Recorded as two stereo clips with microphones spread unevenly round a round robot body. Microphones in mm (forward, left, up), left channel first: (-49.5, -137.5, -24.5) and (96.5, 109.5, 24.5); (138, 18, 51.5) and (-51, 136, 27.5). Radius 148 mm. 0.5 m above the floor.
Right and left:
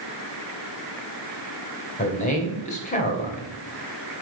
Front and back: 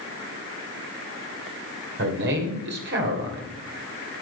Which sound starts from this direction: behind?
A man speaking, at 2.0 s.